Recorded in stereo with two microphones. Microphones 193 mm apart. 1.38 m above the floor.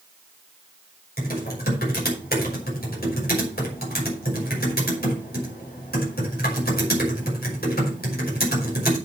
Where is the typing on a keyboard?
55° left (ahead or behind), 5.5 m.